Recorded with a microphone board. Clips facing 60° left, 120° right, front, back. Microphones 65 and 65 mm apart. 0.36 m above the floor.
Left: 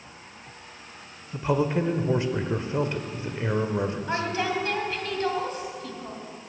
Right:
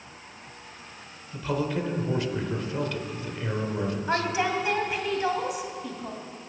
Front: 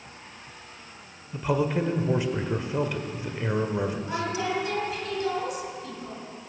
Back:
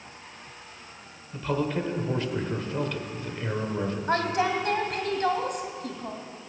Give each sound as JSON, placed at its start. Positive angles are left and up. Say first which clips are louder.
{"t": 1.3, "sound": "a man speaking", "louder": "left 4 dB, front 2 dB", "azimuth_deg": 60, "distance_m": 0.9}
{"t": 4.1, "sound": "a woman speaking", "louder": "right 5 dB, back 4 dB", "azimuth_deg": 165, "distance_m": 2.0}